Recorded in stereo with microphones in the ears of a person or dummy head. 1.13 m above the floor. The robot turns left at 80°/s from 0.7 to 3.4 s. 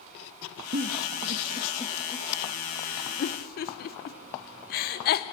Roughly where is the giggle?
Right.